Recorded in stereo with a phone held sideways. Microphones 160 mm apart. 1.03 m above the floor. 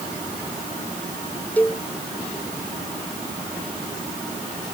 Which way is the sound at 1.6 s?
10° left (ahead or behind).